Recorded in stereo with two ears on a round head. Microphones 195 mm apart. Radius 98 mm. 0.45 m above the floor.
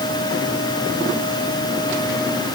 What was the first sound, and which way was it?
Only background noise.